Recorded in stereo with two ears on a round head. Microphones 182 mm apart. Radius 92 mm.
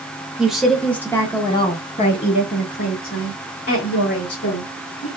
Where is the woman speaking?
5° right (ahead or behind), 1.3 m; by 5.1 s 60° left (ahead or behind), 2.5 m.